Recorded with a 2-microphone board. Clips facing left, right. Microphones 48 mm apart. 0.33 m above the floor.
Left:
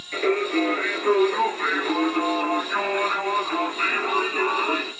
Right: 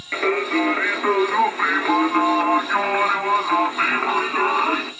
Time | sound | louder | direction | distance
0.1 | singing | right 2 dB | 45° right (ahead or behind) | 1.2 m